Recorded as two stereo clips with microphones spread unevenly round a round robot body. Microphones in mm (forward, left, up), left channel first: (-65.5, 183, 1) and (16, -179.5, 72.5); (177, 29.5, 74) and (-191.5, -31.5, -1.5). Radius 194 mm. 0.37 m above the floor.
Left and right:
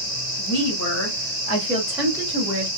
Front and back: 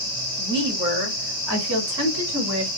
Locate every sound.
0.4 s a woman speaking: 120° left, 2.5 m; by 2.7 s 145° right, 2 m